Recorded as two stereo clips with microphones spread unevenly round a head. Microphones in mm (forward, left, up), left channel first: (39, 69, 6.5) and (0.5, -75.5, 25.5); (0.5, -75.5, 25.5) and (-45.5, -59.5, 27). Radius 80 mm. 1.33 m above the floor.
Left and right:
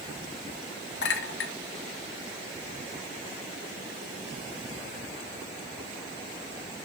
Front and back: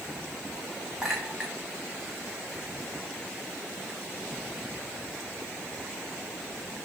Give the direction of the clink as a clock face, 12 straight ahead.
9 o'clock.